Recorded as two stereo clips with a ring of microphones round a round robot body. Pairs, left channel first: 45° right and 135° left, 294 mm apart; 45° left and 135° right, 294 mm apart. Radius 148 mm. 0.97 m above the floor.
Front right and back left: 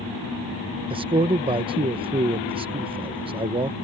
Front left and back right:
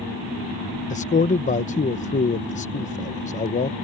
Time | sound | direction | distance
0.9 | a man speaking | 80° left | ?